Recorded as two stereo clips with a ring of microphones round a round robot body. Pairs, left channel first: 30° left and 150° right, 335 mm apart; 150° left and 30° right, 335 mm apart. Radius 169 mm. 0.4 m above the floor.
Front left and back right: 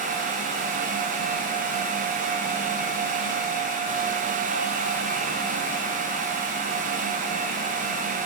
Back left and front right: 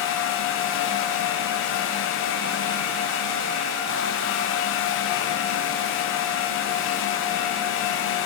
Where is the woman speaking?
I don't hear a woman speaking.